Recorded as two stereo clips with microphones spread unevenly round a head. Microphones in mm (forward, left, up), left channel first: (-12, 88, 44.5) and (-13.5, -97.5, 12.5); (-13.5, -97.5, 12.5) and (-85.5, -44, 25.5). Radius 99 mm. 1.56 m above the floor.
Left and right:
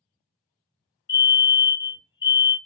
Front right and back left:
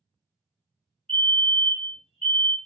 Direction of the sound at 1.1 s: 20° left.